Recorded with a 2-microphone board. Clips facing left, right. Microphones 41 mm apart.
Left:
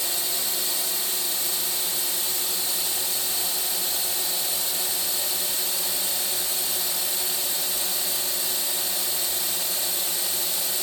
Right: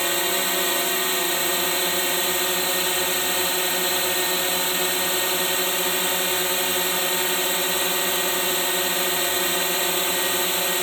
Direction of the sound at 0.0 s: 55° right (ahead or behind).